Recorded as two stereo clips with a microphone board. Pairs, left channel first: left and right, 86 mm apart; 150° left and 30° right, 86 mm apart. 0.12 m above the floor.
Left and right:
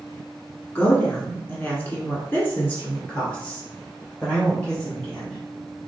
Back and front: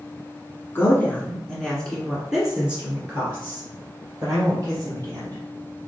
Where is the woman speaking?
135° left, 1.8 m; by 5.4 s 15° left, 3.5 m.